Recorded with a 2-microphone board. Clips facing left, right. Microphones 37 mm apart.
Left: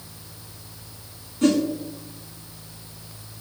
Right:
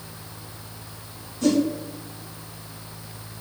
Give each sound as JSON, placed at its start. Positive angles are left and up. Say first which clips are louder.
{"t": 1.4, "sound": "a whoosh", "louder": "left 1 dB", "side_deg": 45, "distance_m": 0.9}